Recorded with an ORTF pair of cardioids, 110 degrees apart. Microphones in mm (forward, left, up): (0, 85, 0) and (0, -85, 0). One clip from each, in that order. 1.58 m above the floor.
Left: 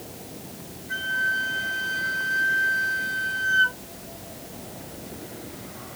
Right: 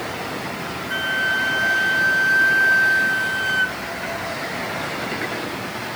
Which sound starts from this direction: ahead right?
A flute, at 0.9 s.